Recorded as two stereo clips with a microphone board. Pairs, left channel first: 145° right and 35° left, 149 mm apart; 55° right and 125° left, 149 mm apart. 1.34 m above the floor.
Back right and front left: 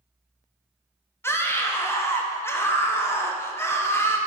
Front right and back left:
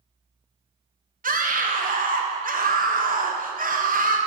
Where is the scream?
140° left, 0.7 m.